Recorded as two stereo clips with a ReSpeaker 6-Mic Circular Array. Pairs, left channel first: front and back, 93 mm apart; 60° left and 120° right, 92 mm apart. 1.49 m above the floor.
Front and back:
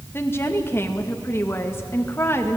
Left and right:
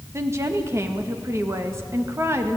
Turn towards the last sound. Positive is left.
turn(degrees=-60)